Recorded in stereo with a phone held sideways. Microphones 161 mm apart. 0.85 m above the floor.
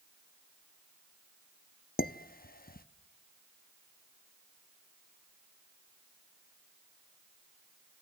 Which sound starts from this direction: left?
Dishes clattering, at 2.0 s.